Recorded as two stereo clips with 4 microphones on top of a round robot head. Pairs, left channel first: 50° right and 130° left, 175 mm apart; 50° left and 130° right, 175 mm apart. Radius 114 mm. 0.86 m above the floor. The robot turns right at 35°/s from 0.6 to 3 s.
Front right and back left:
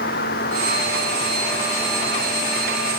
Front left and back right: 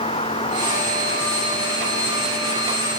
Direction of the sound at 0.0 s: 15° right.